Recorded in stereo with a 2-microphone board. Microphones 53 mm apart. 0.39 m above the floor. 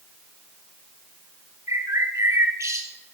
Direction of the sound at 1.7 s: 80° right.